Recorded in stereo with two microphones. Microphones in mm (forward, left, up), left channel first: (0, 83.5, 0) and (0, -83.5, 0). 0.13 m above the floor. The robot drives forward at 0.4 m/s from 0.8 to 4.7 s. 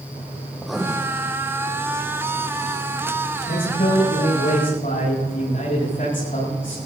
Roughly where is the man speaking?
Left.